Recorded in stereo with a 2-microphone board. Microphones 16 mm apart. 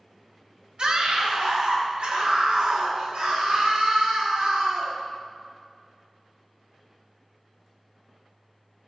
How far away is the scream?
About 3 m.